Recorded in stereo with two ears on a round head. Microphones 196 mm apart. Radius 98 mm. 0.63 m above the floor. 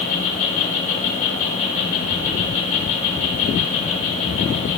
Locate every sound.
0.0 s an insect: 35° left (ahead or behind), 1.7 m